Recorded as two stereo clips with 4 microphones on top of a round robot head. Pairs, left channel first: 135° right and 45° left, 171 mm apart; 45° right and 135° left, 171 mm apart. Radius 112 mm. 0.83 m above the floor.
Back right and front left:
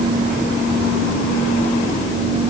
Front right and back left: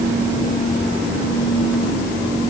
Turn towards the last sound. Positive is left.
No sound to turn to.